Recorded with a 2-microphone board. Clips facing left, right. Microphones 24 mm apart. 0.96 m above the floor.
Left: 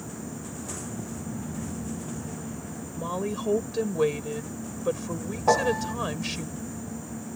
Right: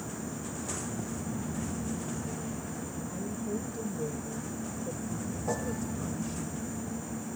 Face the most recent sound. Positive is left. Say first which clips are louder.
# left 13 dB
turn(degrees=55)  # may be behind; listen again after turning